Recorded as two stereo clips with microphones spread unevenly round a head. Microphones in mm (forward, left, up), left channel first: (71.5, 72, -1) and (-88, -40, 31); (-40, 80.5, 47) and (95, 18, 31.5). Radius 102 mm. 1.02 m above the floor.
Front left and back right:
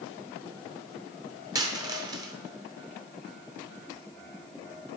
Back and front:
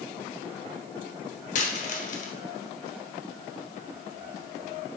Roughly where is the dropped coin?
Behind.